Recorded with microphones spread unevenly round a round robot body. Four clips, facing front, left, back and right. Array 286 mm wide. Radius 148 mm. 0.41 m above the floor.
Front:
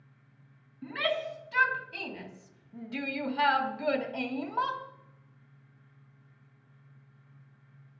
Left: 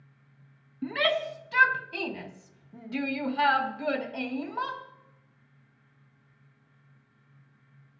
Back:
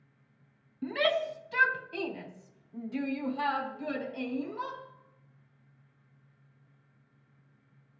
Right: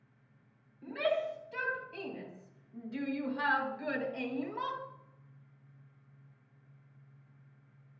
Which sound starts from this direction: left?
A shout, at 0.8 s.